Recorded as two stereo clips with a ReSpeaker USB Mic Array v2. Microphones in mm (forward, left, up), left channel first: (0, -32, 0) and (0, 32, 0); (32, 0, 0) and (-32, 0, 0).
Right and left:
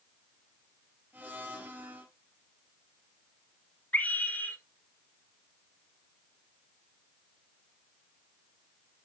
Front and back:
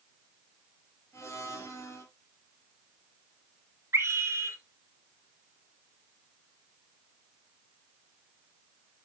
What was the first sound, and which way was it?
A blender, 35° left.